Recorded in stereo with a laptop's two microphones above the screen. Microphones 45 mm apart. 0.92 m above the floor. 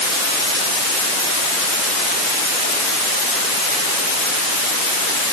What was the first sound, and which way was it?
Only background noise.